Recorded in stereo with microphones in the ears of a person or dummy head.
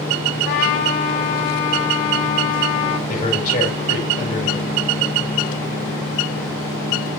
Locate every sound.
0.5 s a trumpet: 55° left (ahead or behind), 1.2 m
3.1 s a man speaking: 45° left (ahead or behind), 5.5 m